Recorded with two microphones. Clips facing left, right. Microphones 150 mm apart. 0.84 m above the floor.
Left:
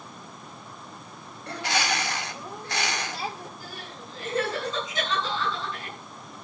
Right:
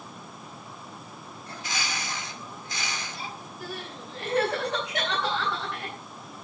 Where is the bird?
70° left (ahead or behind), 2.0 m.